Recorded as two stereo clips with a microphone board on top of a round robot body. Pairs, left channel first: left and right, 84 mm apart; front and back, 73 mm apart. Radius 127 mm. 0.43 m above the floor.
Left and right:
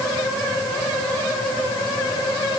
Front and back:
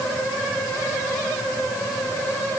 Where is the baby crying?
I don't hear a baby crying.